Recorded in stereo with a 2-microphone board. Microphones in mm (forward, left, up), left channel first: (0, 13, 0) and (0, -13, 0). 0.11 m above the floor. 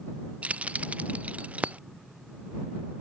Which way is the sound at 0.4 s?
65° right (ahead or behind).